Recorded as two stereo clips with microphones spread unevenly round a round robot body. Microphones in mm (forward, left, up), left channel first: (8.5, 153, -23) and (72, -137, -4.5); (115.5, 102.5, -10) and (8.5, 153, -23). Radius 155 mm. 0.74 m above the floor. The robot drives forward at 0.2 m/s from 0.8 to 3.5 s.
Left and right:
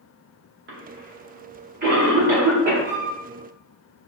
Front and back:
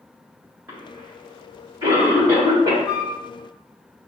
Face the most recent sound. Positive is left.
turn(degrees=-140)